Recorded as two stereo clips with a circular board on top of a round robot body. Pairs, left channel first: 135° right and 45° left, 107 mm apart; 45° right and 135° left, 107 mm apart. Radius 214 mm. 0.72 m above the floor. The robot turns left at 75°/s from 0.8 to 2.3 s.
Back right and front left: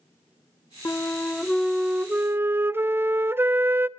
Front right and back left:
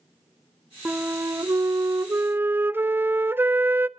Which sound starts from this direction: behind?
A flute, at 0.8 s.